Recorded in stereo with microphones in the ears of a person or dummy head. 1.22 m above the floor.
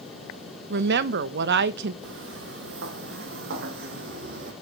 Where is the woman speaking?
65° right (ahead or behind), 0.9 m.